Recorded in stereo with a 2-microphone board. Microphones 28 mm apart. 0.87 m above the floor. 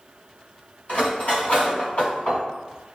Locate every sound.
0.9 s cutlery clinking: 70° left (ahead or behind), 1.8 m